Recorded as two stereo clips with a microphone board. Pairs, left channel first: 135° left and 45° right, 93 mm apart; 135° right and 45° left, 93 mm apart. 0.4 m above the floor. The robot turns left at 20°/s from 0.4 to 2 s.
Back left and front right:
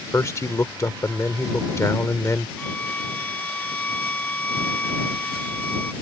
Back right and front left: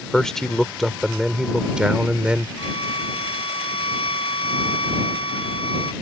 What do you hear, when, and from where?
0.1 s a man speaking: 145° left; by 2.5 s 115° left
2.6 s a violin: 150° right